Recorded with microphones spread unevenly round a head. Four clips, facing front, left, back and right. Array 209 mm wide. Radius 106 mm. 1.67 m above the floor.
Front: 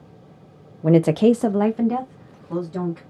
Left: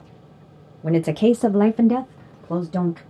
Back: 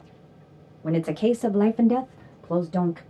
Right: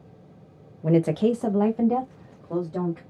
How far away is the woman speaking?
About 0.7 m.